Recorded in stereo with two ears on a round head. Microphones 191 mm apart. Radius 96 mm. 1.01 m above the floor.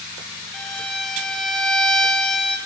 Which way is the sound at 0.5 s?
Centre (ahead or behind).